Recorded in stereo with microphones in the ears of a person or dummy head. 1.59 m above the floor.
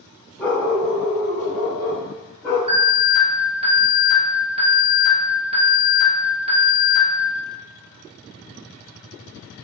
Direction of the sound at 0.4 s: 10° left (ahead or behind).